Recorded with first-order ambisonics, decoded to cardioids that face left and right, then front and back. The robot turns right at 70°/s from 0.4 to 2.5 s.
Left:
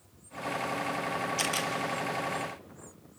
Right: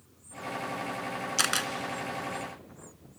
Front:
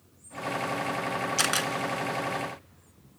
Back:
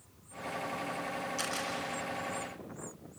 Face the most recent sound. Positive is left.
turn(degrees=30)